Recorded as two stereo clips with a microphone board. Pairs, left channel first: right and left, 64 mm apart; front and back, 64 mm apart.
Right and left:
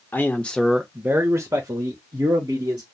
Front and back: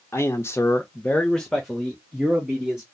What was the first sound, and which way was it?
A man speaking, 40° right.